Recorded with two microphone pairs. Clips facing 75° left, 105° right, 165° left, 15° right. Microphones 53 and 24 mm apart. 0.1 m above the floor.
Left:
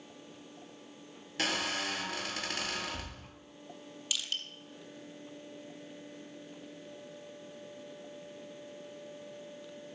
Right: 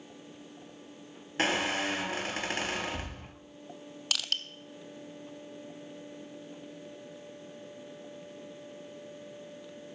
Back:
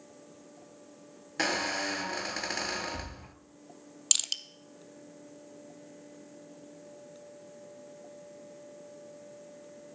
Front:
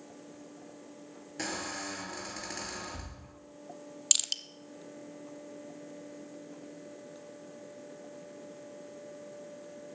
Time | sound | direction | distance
1.4 | a squeak | 155° right | 0.7 m
4.1 | crushing | 115° right | 0.5 m